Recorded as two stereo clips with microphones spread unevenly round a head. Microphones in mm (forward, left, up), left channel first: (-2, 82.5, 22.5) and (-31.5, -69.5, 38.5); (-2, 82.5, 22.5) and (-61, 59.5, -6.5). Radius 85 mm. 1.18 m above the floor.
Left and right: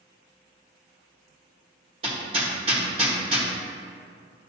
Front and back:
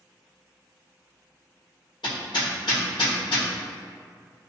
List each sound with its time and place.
2.0 s hammering: 40° right, 1.6 m